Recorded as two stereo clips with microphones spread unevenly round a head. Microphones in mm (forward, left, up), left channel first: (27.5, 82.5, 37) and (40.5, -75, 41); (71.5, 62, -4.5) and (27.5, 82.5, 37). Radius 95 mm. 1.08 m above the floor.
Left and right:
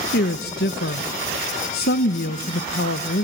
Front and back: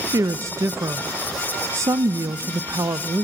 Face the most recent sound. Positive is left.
turn(degrees=130)